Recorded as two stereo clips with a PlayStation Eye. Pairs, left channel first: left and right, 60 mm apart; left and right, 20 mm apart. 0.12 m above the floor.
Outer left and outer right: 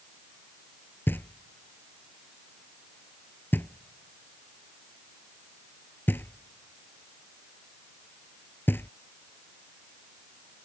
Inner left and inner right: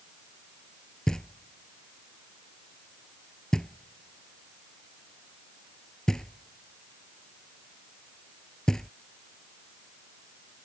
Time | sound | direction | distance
1.1 | knocking | 40° left (ahead or behind) | ?